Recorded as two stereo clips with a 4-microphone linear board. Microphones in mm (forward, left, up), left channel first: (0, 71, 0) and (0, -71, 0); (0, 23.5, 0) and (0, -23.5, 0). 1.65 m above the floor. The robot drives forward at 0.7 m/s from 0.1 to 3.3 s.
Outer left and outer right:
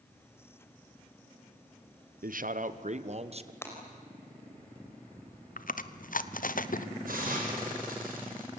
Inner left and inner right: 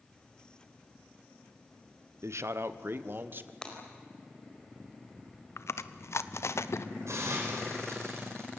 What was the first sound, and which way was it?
A man speaking, 80° right.